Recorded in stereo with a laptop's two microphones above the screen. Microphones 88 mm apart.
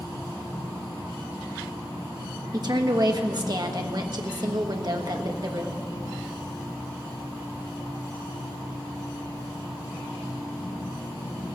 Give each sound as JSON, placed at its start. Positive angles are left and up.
{"t": 2.5, "sound": "a woman speaking", "side_deg": -50, "distance_m": 1.4}